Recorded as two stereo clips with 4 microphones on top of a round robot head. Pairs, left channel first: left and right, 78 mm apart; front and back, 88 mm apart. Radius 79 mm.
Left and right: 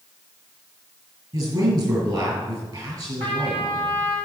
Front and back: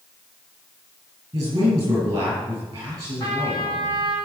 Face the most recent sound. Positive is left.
turn(degrees=-65)